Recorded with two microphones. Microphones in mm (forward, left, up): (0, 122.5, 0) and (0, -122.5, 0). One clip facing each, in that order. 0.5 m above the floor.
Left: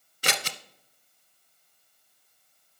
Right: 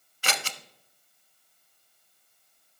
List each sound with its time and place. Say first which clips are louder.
0.2 s scissors: left 2 dB; 40° left (ahead or behind), 0.7 m